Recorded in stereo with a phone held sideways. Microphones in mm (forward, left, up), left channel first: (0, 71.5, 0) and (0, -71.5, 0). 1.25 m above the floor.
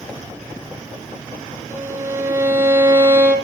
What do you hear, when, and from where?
1.7 s a violin: 15° right (ahead or behind), 3 m